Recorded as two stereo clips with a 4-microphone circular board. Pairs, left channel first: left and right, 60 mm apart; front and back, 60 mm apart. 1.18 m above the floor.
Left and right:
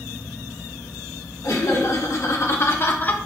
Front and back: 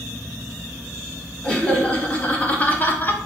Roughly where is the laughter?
Left.